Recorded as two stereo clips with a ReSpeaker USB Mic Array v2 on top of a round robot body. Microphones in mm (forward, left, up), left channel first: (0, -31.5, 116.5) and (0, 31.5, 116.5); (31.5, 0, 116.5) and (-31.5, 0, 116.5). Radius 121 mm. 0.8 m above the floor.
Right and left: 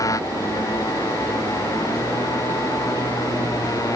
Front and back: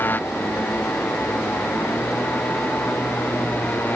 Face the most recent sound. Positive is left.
turn(degrees=-60)